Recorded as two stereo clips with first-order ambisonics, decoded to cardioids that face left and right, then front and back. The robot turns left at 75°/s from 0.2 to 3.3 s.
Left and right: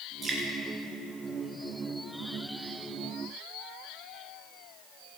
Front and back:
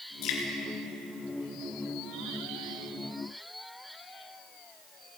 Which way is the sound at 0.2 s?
15° right.